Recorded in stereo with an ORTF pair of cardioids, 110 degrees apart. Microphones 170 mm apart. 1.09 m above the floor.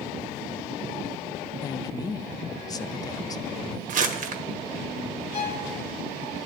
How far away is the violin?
About 2.5 m.